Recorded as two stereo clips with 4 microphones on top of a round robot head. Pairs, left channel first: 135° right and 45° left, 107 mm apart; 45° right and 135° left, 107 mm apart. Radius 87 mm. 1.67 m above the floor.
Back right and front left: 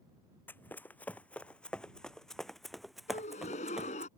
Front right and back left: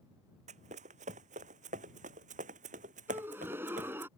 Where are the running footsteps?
150° left; by 4.1 s 125° left.